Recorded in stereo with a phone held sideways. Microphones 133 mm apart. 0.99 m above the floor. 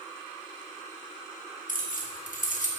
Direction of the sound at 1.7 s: 75° left (ahead or behind).